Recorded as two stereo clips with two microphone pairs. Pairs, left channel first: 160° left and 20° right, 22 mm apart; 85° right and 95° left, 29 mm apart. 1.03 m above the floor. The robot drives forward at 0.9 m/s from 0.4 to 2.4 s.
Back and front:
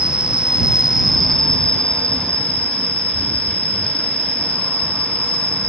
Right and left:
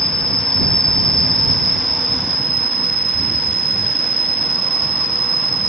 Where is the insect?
10° right, 0.9 m; by 5.7 s 175° right, 1.3 m.